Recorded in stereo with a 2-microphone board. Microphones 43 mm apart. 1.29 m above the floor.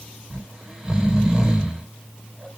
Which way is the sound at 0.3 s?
15° right (ahead or behind).